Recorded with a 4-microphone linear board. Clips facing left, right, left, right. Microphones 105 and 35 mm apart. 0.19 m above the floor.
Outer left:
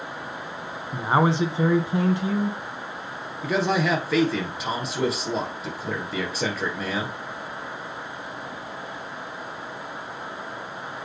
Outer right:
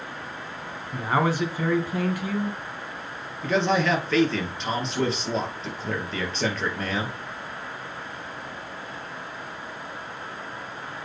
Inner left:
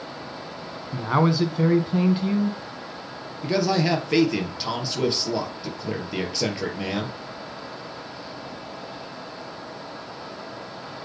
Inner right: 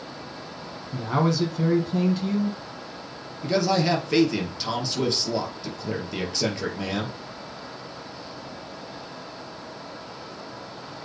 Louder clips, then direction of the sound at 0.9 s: Outer left 3 dB, inner left 2 dB; 25° left (ahead or behind).